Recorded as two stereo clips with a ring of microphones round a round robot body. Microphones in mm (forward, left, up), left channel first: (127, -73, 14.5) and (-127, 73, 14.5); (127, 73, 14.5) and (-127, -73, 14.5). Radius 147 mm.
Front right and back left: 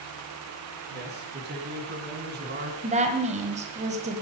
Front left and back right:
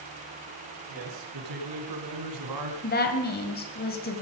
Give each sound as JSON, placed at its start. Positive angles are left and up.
{"t": 0.9, "sound": "a man speaking", "azimuth_deg": -155, "distance_m": 5.0}
{"t": 2.8, "sound": "a woman speaking", "azimuth_deg": 85, "distance_m": 2.0}